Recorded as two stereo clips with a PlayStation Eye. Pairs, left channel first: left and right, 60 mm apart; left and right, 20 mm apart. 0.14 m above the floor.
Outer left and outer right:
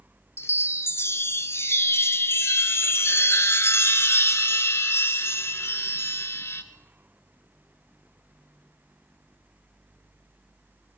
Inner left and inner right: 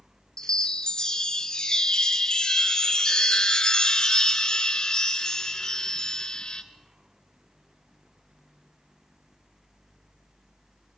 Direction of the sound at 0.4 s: 45° left (ahead or behind).